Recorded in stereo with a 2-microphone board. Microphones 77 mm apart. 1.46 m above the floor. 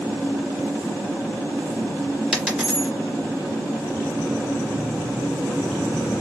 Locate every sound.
2.3 s a dropped coin: 10° right (ahead or behind), 2.5 m